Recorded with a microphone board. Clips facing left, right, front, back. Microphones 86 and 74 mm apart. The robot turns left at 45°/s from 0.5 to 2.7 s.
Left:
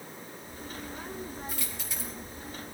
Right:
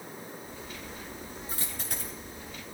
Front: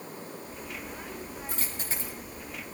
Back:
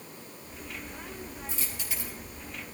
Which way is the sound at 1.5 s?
35° right.